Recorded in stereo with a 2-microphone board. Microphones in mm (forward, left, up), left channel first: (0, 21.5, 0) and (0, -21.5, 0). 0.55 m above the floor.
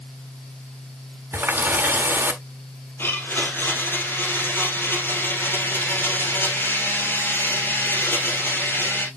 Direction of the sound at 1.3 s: 60° right (ahead or behind).